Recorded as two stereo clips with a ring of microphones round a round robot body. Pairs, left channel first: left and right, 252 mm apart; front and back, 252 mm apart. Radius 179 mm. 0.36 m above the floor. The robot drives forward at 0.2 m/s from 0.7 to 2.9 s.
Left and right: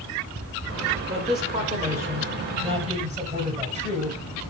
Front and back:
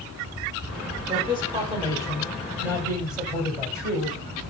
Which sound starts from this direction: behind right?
A man speaking, at 1.1 s.